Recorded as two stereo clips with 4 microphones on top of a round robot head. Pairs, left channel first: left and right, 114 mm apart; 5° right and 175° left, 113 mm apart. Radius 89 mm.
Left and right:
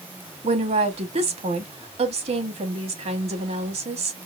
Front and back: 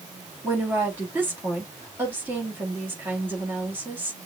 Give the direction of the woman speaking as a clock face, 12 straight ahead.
4 o'clock.